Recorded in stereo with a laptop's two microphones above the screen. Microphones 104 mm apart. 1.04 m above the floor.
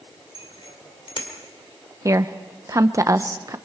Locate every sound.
0.3 s a bicycle bell: 65° left (ahead or behind), 2.5 m
2.0 s a woman speaking: 35° right (ahead or behind), 0.8 m